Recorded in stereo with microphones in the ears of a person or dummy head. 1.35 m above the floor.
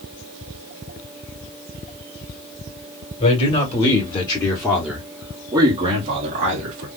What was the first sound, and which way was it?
A man speaking, 40° left (ahead or behind).